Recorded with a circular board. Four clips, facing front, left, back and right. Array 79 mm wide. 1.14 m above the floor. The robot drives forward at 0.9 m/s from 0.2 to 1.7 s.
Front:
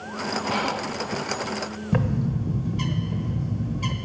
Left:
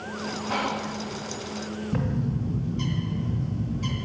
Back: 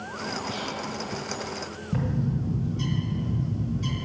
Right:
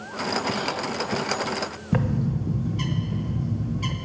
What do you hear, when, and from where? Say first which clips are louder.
0.5 s whispering: even, front 6 dB; 35° left, 0.7 m; by 1.0 s 65° left, 0.5 m
1.9 s a bird: right 4 dB, front 3 dB; 50° right, 1.1 m